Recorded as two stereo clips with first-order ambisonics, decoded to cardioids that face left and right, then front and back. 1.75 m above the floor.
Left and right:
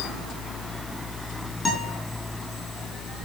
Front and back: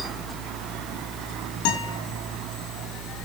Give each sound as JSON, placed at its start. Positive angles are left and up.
{"t": 1.6, "sound": "a guitar", "azimuth_deg": 20, "distance_m": 4.0}